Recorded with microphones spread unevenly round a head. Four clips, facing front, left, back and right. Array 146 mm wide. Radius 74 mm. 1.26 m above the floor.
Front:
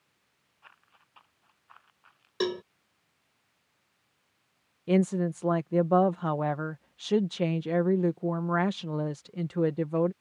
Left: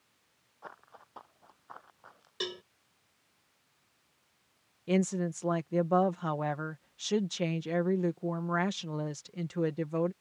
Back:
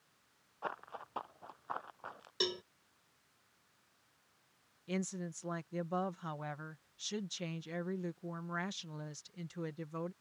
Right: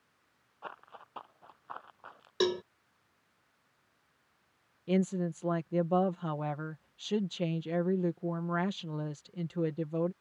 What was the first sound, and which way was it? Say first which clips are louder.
Running footsteps: right 3 dB, back 17 dB; 175° right.